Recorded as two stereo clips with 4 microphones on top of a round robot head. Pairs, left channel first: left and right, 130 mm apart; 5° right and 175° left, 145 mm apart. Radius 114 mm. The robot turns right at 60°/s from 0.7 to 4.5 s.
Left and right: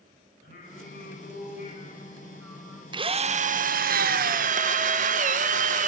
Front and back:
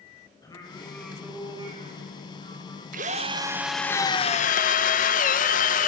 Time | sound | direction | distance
0.4 | singing | 60° left | 6 m
2.9 | a drill | 145° right | 1.3 m